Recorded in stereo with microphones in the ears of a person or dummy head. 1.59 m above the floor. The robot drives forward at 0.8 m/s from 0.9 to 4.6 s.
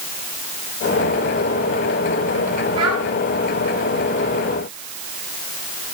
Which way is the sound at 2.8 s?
25° right (ahead or behind).